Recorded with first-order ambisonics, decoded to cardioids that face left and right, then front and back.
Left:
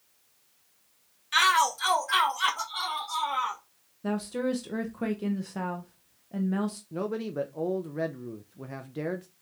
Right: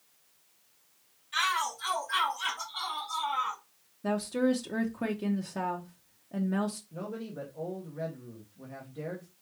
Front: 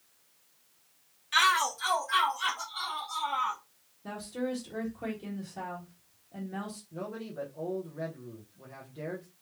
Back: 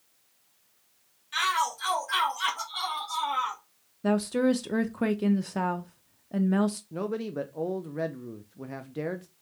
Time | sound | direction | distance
1.3 | a shout | 65° left | 1.0 m
4.0 | a woman speaking | straight behind | 0.6 m
6.9 | a man speaking | 140° left | 0.6 m